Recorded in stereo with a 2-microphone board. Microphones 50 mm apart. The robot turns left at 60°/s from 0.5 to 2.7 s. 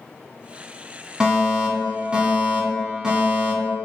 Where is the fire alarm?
15° right (ahead or behind), 2.5 m.